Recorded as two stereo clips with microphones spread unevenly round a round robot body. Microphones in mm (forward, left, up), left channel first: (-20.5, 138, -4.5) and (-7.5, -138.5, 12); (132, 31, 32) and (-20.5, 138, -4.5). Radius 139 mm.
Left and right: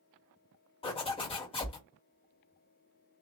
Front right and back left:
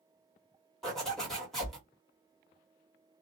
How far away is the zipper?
About 1.3 m.